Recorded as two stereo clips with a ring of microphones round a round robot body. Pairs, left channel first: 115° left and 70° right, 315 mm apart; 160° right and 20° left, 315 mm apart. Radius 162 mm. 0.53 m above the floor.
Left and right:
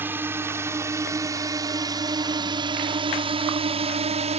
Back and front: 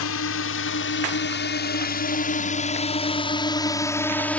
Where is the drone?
150° right; by 4.4 s 80° right.